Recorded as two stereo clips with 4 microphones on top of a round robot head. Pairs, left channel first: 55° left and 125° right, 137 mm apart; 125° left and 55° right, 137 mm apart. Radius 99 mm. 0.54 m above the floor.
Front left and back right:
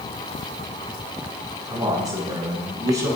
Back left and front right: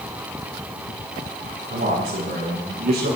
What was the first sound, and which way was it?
A man speaking, 60° right.